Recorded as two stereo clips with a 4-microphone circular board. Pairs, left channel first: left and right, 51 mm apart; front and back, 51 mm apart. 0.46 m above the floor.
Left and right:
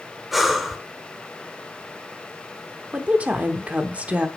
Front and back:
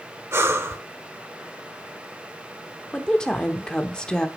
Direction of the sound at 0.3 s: Straight behind.